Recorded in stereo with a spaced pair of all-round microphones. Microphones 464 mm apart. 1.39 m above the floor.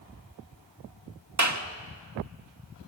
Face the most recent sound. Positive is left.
turn(degrees=-40)  # may be behind; listen again after turning